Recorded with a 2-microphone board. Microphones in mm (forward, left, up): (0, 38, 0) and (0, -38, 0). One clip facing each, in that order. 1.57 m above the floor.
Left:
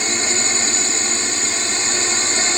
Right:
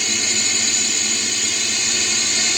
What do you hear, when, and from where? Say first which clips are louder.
0.0 s a drone: left 3 dB; 30° left (ahead or behind)